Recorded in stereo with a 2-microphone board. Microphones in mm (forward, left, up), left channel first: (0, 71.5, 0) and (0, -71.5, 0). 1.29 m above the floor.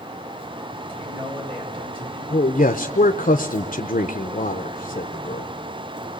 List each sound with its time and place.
0.9 s a man speaking: 40° right (ahead or behind), 7.5 m
2.3 s a man speaking: 75° left (ahead or behind), 0.8 m